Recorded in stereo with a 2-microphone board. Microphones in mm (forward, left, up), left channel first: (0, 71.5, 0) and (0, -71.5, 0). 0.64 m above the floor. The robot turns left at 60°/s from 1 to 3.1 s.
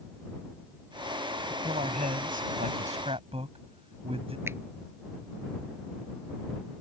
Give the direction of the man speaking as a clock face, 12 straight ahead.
1 o'clock.